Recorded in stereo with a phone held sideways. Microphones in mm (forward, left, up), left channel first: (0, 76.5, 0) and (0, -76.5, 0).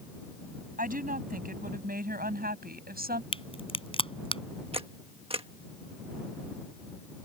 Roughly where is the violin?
No violin in this recording.